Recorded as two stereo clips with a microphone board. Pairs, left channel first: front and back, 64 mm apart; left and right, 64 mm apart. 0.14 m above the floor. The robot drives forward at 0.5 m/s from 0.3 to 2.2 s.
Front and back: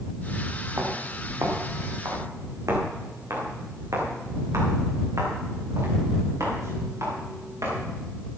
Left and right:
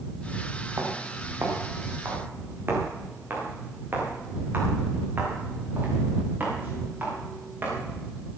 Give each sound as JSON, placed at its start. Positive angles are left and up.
{"t": 0.8, "sound": "footsteps", "azimuth_deg": -140, "distance_m": 4.0}